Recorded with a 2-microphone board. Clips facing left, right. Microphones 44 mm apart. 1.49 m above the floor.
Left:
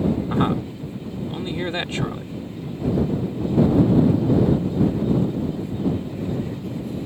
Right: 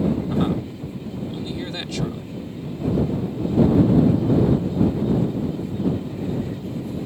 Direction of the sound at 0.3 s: 30° left (ahead or behind).